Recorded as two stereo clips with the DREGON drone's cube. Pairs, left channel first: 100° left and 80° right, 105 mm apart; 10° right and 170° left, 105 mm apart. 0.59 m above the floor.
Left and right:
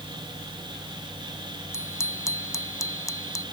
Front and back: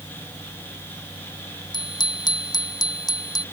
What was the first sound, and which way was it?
A bicycle bell, 35° left.